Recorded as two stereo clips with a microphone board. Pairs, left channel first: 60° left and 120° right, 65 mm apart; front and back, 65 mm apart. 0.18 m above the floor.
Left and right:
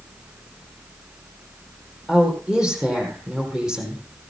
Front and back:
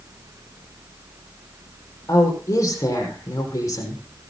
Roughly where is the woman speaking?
Ahead right.